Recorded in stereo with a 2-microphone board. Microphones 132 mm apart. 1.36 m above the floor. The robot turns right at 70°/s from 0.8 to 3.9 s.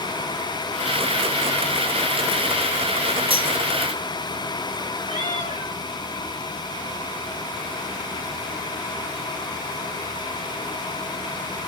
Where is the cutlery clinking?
40° right (ahead or behind), 1.7 m; by 3.5 s 25° right (ahead or behind), 1.7 m.